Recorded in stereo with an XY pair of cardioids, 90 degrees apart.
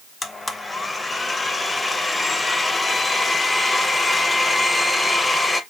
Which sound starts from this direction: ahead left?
A blender, at 0.2 s.